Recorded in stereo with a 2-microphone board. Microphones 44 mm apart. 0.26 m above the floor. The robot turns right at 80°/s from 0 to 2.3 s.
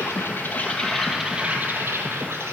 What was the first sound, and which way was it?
An insect, 95° left.